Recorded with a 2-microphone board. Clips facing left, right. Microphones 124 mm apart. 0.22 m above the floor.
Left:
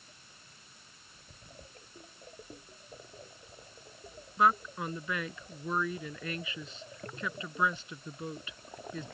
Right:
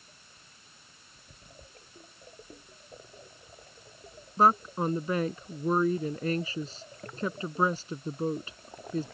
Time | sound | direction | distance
4.4 | a woman speaking | 35° right (ahead or behind) | ?